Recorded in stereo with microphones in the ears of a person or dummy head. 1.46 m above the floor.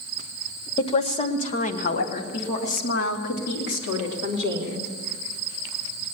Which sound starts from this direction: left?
A woman speaking, at 0.8 s.